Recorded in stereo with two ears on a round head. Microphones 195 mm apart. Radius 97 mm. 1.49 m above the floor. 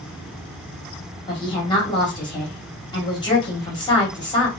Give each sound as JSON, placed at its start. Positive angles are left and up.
{"t": 1.3, "sound": "a woman speaking", "side_deg": 20, "distance_m": 1.5}